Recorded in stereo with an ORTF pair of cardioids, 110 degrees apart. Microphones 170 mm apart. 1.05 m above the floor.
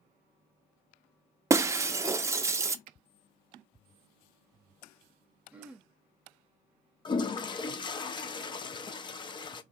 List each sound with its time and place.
1.5 s breaking glass: 15° right, 0.6 m
2.9 s a finger snap: 65° right, 0.5 m
5.5 s throat clearing: 10° right, 0.9 m
7.0 s a toilet flushing: 30° left, 0.6 m